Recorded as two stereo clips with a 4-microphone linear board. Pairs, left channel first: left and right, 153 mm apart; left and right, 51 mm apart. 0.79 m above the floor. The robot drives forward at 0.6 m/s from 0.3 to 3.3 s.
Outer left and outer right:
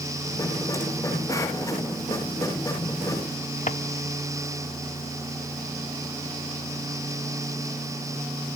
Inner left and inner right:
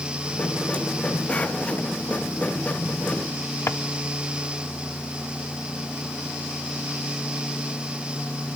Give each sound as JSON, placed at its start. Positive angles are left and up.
{"t": 3.7, "sound": "a drawer", "side_deg": 55, "distance_m": 0.9}